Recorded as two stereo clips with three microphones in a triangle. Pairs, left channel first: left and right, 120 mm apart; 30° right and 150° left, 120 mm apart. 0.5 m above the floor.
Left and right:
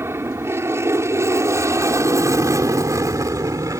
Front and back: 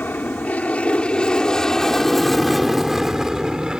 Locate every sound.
0.0 s an aircraft: 75° right; by 3.8 s 130° right